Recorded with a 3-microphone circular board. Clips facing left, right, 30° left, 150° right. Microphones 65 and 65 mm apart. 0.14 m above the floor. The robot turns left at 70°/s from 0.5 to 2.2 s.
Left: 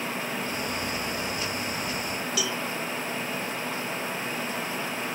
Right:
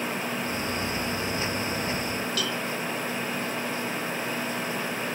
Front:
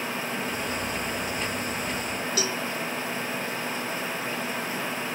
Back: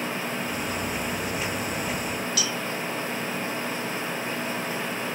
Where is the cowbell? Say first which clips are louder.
Right 1 dB, front 1 dB; 15° left.